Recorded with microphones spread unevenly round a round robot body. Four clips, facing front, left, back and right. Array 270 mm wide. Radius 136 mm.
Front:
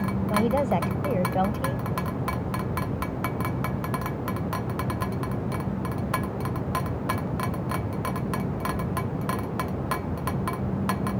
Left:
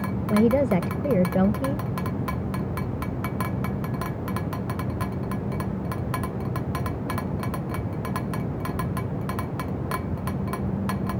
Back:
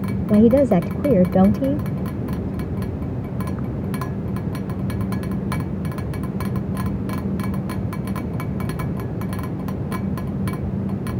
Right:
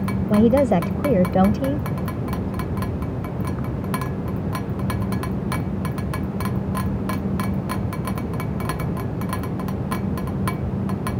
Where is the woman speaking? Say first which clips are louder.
Right 4 dB, back 10 dB; 170° right.